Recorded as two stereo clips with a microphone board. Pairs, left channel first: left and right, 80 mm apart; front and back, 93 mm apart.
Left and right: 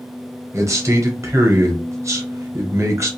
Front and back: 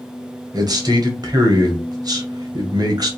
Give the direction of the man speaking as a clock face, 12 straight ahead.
5 o'clock.